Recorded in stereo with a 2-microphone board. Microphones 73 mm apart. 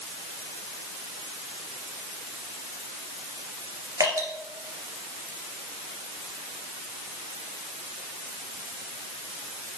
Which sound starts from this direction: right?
Dripping, at 4.0 s.